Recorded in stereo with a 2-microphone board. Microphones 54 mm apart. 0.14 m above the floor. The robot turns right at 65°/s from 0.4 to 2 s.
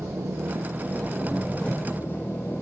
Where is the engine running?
60° right, 6.5 m; by 2.6 s 45° left, 6.5 m.